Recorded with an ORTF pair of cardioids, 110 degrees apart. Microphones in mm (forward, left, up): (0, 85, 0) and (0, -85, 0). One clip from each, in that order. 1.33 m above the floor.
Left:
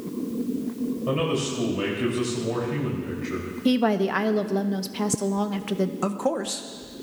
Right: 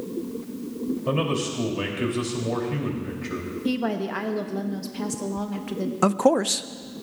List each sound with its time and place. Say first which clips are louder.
1.1 s a man speaking: even; 15° right, 3 m
3.6 s a woman speaking: left 5 dB; 25° left, 0.9 m
6.0 s a man speaking: right 11 dB; 30° right, 0.6 m